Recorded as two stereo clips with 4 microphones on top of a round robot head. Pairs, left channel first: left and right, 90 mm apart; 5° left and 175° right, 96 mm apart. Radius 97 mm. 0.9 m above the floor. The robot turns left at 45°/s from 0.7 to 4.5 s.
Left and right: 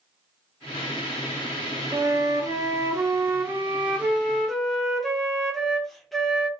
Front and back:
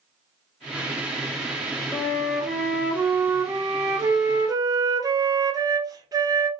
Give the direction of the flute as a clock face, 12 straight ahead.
2 o'clock.